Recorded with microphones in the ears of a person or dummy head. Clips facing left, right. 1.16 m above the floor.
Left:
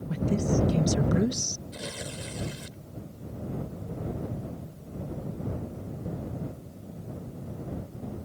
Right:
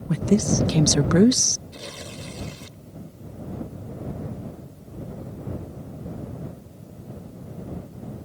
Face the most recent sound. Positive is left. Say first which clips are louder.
# even
turn(degrees=5)  # may be behind; listen again after turning